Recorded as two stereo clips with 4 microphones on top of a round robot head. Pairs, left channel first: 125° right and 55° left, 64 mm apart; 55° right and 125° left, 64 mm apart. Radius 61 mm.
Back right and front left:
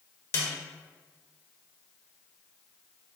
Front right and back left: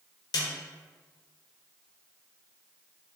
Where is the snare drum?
70° right, 1.0 m.